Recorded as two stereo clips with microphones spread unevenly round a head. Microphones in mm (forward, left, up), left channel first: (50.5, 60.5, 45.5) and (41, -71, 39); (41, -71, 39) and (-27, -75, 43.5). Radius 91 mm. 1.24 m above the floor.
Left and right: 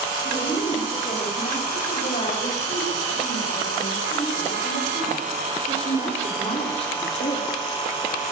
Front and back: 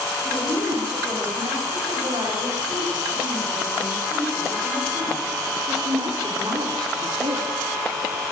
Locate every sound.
0.2 s a woman speaking: 135° left, 7.5 m; by 7.5 s 145° left, 2.5 m